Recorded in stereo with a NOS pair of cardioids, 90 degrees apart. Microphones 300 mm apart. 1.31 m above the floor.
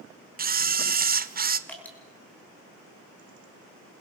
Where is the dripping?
5° left, 6 m.